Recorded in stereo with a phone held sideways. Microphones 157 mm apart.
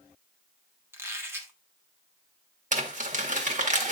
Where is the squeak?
15° right (ahead or behind), 1.5 m.